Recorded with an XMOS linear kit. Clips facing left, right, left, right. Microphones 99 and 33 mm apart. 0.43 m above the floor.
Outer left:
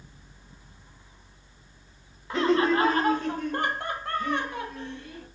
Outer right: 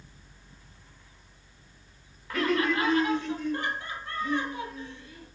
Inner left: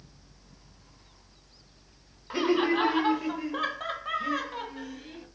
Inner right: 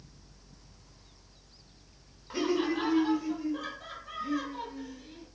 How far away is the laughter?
About 1.0 m.